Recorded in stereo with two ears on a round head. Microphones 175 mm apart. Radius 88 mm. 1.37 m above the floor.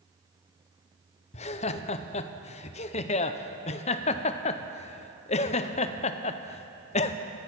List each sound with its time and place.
1.3 s laughter: 35° left (ahead or behind), 0.6 m